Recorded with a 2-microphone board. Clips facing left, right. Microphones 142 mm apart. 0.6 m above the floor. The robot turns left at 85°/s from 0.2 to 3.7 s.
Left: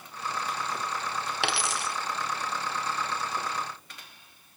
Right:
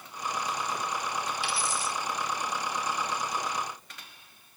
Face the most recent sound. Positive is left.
turn(degrees=-90)